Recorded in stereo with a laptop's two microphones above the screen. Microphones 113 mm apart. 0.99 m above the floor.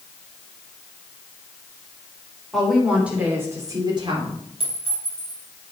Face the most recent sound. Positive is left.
turn(degrees=-55)  # may be behind; listen again after turning